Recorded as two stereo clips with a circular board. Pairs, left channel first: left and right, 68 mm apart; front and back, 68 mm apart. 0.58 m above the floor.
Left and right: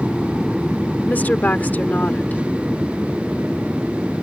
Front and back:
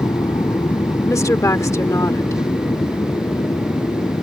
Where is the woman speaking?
30° left.